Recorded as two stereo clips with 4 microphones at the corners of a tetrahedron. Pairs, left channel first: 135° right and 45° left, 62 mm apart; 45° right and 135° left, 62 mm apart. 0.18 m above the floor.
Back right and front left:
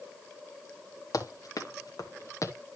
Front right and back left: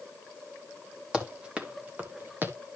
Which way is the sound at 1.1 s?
150° right.